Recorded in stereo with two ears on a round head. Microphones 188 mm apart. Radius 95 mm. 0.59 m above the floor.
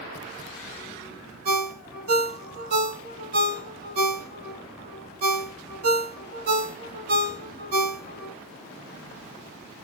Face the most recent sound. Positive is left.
turn(degrees=-45)  # may be behind; listen again after turning